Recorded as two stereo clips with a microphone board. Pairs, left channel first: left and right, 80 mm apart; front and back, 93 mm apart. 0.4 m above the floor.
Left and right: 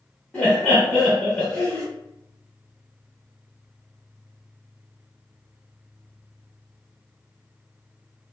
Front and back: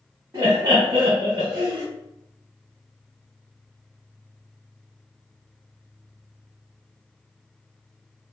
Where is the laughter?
155° left, 1.0 m.